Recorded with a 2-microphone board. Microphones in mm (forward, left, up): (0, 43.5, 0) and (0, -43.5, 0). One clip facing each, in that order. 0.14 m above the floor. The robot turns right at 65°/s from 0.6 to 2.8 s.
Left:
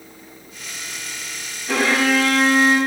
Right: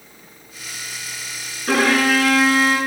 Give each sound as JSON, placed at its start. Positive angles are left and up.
{"t": 1.7, "sound": "a violin", "azimuth_deg": -70, "distance_m": 6.5}